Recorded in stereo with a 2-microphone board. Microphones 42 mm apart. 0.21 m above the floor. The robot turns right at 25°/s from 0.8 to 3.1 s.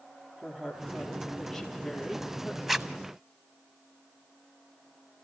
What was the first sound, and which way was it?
A woman speaking, 15° right.